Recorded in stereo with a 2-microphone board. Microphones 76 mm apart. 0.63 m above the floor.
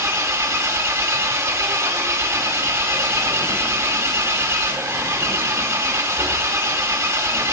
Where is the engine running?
35° right (ahead or behind), 1.2 m.